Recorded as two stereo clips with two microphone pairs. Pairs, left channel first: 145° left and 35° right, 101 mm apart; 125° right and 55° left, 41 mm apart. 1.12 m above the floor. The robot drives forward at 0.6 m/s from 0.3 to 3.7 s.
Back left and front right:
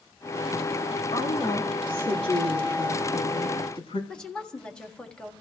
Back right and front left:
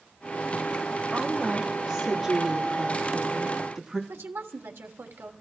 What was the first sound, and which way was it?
A woman speaking, 140° left.